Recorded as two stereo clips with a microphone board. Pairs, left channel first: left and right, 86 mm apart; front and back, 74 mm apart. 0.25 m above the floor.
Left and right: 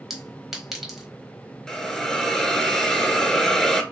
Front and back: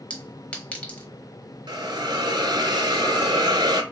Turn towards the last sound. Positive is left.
turn(degrees=175)